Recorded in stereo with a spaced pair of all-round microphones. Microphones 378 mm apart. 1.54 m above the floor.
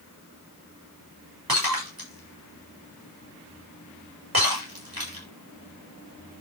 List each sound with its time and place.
1.5 s breaking glass: 70° right (ahead or behind), 7 m